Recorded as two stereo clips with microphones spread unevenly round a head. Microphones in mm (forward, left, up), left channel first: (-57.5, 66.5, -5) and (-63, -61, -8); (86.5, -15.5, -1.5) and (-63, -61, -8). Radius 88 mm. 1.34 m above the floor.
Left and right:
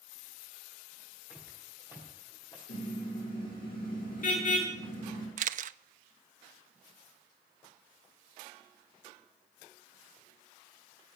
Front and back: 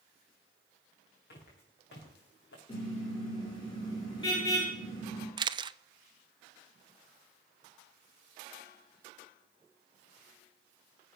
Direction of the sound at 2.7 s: 85° left.